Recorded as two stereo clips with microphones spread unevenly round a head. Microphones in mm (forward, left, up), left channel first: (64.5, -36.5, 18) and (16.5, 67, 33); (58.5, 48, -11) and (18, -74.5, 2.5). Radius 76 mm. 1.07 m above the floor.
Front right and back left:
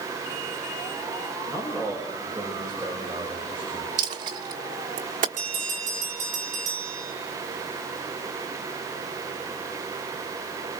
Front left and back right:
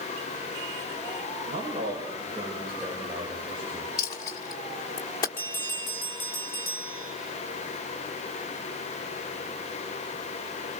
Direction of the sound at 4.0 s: 135° left.